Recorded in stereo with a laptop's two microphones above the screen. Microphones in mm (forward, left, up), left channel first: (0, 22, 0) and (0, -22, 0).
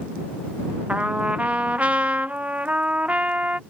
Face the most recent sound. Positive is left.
turn(degrees=-35)  # may be behind; listen again after turning